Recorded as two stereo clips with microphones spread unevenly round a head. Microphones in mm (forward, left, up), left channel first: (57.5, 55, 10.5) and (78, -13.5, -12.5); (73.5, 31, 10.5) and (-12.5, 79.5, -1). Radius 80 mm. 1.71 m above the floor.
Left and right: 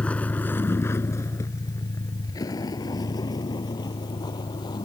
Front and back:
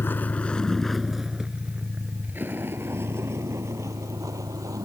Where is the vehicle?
35° left; by 4.9 s 100° left.